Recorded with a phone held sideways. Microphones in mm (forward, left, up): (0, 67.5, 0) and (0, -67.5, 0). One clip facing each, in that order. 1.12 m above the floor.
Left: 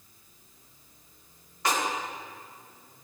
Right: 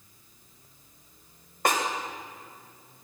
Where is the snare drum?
50° right (ahead or behind), 1.4 m.